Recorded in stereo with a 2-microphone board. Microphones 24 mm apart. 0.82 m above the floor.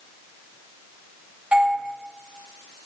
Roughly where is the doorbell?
Right.